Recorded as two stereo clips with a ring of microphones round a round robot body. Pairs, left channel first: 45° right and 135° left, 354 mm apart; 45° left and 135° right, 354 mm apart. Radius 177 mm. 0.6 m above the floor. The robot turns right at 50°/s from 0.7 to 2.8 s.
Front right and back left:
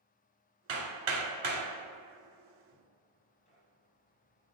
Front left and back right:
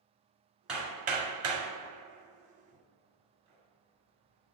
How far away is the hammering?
About 2.5 m.